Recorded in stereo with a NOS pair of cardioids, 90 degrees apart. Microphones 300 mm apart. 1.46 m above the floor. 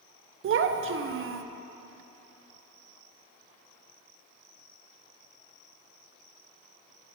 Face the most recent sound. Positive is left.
turn(degrees=-45)